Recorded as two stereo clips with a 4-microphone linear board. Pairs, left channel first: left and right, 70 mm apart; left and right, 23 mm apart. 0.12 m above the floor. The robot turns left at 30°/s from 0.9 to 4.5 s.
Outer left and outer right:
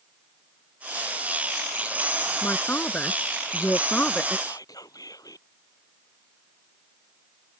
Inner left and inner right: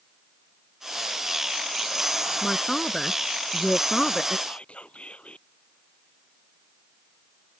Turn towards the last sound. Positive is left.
turn(degrees=70)  # may be behind; listen again after turning